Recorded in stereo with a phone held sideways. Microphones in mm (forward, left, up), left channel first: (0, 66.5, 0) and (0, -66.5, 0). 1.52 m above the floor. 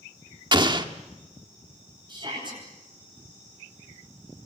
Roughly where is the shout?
Right.